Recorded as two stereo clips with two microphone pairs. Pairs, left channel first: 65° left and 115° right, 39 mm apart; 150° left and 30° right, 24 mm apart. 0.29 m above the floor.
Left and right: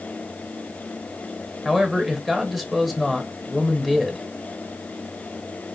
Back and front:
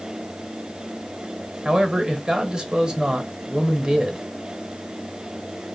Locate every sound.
1.6 s a man speaking: 35° right, 1.0 m